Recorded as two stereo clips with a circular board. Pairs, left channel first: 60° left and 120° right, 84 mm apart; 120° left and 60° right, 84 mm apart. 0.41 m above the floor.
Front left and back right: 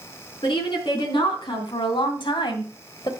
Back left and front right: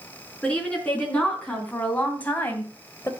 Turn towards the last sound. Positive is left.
turn(degrees=60)